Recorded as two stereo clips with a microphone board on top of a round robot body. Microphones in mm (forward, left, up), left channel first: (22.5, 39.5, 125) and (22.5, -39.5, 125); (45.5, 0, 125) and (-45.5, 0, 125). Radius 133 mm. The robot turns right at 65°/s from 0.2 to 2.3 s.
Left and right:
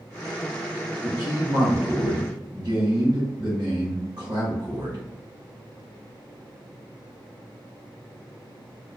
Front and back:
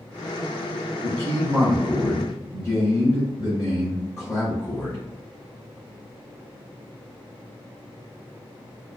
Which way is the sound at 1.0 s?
140° right.